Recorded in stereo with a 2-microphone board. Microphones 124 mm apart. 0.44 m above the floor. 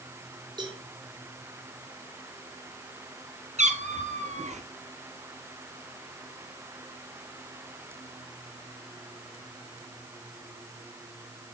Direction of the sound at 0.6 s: 40° right (ahead or behind).